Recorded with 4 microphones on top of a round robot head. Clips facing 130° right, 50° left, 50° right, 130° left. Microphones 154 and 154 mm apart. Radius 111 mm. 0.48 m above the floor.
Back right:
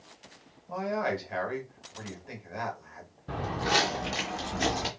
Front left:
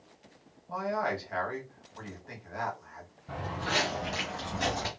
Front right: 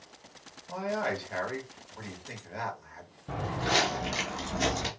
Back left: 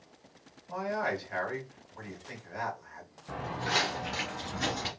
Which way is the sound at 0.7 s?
80° right.